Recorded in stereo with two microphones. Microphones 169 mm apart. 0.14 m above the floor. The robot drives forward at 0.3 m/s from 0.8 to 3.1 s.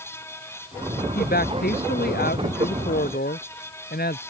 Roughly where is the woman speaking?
Left.